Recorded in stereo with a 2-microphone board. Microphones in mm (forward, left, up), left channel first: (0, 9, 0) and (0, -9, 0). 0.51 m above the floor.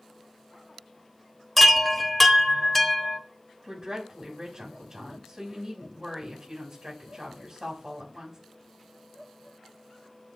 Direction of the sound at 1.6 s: 10° left (ahead or behind).